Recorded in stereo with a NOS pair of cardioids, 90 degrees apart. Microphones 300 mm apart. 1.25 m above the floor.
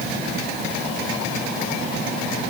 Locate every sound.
Only background noise.